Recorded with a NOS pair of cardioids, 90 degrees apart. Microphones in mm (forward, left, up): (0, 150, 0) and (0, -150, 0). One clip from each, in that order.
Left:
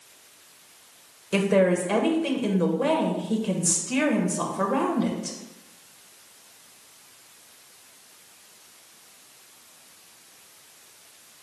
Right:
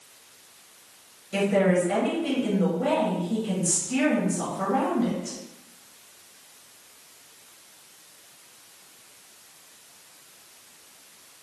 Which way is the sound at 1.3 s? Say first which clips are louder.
Left 1 dB; 60° left.